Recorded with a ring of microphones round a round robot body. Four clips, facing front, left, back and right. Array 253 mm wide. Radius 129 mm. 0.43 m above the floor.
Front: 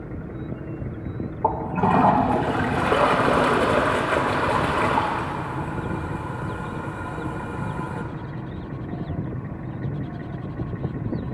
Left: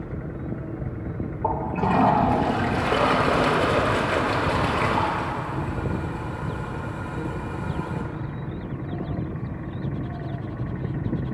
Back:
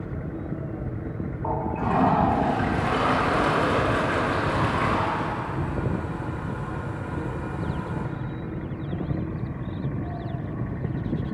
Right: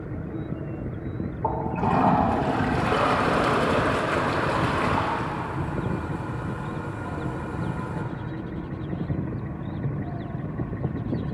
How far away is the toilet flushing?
About 1.6 m.